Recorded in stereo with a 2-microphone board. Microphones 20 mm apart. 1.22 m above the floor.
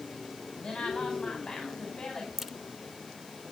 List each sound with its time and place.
0.6 s a woman speaking: 40° left (ahead or behind), 5.5 m
2.4 s a crack: 15° right (ahead or behind), 1.1 m